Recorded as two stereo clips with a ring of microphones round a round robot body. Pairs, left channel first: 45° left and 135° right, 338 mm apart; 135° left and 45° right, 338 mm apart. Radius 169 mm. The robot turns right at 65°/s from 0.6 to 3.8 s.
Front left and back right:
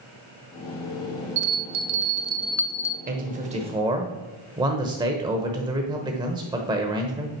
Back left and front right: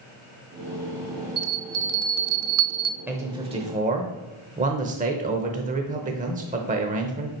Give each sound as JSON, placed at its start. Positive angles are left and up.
{"t": 1.4, "sound": "a bell", "azimuth_deg": -120, "distance_m": 0.6}
{"t": 3.1, "sound": "a man speaking", "azimuth_deg": -125, "distance_m": 0.8}